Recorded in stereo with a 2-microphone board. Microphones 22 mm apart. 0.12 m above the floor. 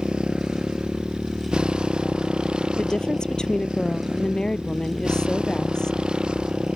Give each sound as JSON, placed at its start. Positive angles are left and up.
{"t": 0.0, "sound": "a motorcycle", "side_deg": -40}
{"t": 2.8, "sound": "a woman speaking", "side_deg": 35}